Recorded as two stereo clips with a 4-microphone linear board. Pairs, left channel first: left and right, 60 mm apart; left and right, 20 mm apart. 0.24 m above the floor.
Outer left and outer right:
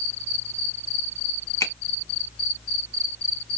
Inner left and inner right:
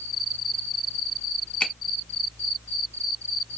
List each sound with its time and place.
1.6 s a finger snap: 55° left (ahead or behind), 1.5 m